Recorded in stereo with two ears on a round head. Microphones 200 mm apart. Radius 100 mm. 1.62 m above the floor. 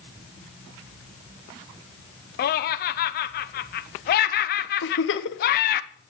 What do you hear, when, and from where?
2.4 s laughter: 45° left (ahead or behind), 0.6 m
4.8 s a giggle: 55° left (ahead or behind), 1.2 m